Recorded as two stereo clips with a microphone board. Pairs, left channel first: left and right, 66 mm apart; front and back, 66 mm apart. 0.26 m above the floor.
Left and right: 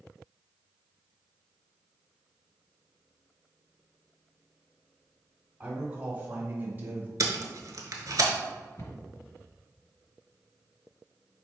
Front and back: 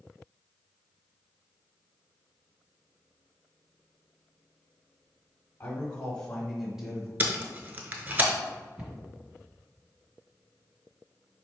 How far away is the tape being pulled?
About 0.7 m.